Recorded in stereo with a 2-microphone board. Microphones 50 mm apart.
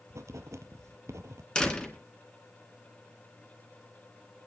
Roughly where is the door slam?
Centre.